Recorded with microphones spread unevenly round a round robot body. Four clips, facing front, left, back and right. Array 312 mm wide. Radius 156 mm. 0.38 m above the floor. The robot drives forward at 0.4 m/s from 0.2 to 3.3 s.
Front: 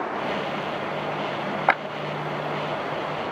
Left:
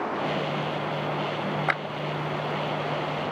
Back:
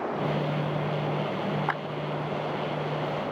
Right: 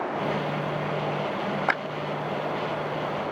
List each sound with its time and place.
1.7 s a clap: 15° right